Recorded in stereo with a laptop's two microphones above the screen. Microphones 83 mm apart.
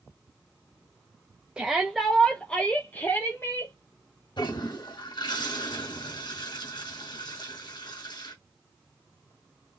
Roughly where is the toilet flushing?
Left.